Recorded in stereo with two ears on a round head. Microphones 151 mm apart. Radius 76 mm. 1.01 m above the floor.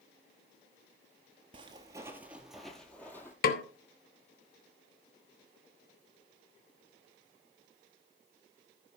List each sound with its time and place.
1.5 s footsteps: 30° right (ahead or behind), 1.3 m; by 3.3 s 15° left (ahead or behind), 1.8 m
3.4 s a snare drum: 60° left (ahead or behind), 1.0 m